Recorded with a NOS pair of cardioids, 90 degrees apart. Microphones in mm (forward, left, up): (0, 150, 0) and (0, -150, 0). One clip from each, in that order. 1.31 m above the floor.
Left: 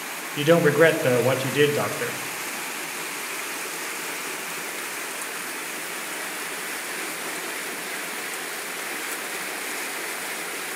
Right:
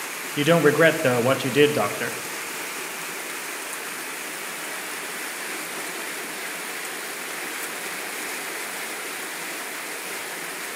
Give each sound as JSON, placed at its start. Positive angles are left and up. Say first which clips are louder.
{"t": 0.4, "sound": "a man speaking", "louder": "even", "azimuth_deg": -25, "distance_m": 1.4}